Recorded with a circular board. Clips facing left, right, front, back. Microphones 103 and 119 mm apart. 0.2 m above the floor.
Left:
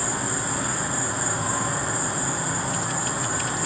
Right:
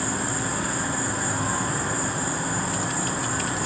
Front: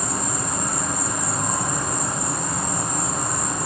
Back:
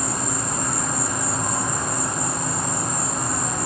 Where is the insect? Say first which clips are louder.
Right 1 dB, even; 30° left, 1.3 m.